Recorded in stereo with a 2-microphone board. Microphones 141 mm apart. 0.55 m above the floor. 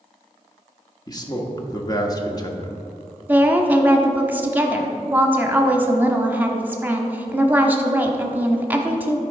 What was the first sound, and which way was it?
A man speaking, 25° left (ahead or behind).